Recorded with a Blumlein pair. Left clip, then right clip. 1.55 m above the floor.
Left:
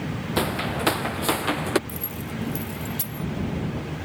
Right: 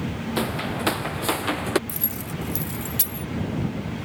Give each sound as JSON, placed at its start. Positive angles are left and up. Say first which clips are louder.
{"t": 0.4, "sound": "footsteps", "louder": "left 2 dB", "azimuth_deg": 10}
{"t": 1.9, "sound": "keys jangling", "louder": "right 1 dB", "azimuth_deg": -20}